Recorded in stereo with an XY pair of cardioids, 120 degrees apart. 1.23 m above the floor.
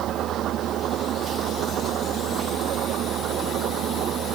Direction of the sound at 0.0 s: 60° right.